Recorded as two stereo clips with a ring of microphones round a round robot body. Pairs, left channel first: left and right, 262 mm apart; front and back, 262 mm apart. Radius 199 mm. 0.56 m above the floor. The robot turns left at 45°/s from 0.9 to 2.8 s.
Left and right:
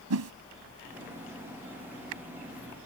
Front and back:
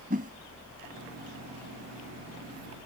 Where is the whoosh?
110° right.